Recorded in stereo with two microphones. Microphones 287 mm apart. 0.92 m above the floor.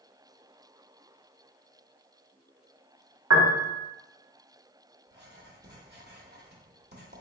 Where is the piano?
65° right (ahead or behind), 0.7 m.